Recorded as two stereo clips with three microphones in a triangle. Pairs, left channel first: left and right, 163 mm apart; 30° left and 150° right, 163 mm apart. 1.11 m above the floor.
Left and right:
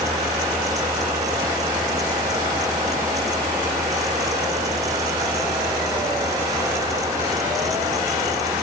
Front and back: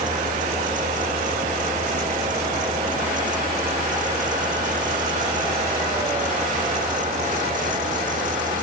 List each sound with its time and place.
Only background noise.